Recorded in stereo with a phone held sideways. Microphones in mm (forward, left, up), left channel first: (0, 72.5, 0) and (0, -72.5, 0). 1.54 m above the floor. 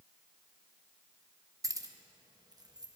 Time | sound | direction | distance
1.6 | keys jangling | 25° right (ahead or behind) | 0.7 m